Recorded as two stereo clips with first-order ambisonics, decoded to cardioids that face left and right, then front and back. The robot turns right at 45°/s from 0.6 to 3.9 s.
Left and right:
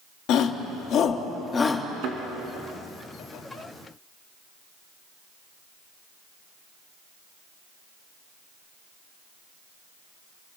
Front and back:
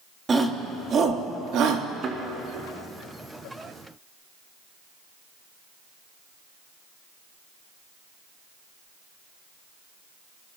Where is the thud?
120° right, 3 m; by 2.2 s 115° right, 3 m.